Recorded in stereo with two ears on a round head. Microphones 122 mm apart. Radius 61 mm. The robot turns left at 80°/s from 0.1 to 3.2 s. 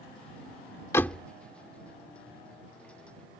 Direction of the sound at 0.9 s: 20° left (ahead or behind).